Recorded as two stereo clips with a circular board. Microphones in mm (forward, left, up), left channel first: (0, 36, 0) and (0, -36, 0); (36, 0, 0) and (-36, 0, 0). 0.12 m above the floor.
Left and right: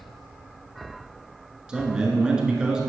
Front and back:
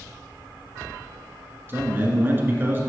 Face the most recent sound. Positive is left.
turn(degrees=-160)